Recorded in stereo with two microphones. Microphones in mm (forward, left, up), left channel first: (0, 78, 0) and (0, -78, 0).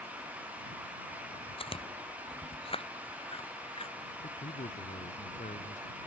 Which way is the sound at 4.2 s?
60° left (ahead or behind).